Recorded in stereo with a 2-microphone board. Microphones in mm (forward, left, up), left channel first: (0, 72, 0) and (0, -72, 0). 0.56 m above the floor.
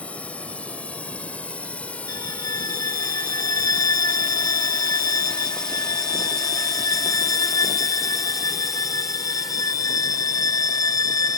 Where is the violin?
80° right.